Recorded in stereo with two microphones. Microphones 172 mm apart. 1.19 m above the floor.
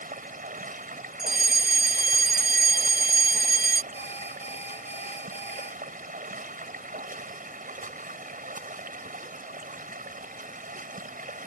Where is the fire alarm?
70° right (ahead or behind).